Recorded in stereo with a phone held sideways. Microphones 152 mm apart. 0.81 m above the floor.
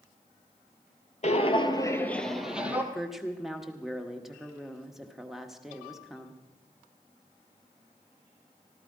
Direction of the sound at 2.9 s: Centre (ahead or behind).